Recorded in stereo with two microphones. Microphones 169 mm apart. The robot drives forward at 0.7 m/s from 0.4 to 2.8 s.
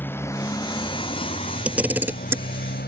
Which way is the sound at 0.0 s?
10° left (ahead or behind).